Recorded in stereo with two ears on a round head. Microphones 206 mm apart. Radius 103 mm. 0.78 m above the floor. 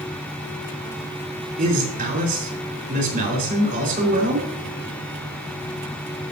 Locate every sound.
1.6 s a man speaking: 45° right (ahead or behind), 3.5 m